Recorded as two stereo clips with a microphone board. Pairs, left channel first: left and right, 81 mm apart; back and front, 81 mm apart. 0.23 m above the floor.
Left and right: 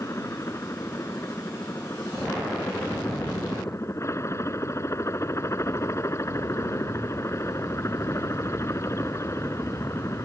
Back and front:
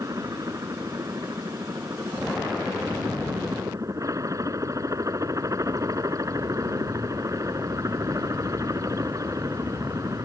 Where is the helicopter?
40° left.